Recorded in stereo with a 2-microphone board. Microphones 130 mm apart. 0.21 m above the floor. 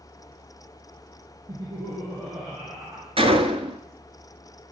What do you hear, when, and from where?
1.5 s laughter: 35° right (ahead or behind), 4 m
3.2 s a gunshot: 45° right (ahead or behind), 1.0 m